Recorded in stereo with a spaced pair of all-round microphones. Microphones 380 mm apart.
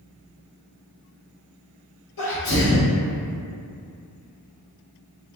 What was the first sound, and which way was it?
A sneeze, 60° left (ahead or behind).